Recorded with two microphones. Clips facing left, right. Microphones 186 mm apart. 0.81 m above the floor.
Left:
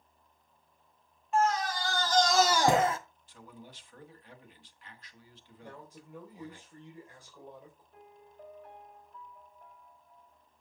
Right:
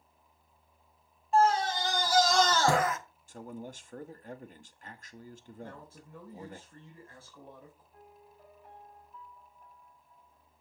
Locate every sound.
1.3 s a scream: 35° right (ahead or behind), 1.3 m; by 3.0 s 30° left (ahead or behind), 1.0 m
3.3 s a man speaking: 45° right (ahead or behind), 1.1 m
5.6 s a man speaking: 15° left (ahead or behind), 3 m
7.9 s a piano: 65° left (ahead or behind), 4 m